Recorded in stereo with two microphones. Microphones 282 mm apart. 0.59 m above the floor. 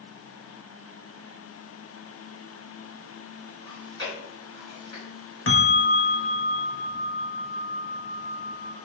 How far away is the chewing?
About 3.5 m.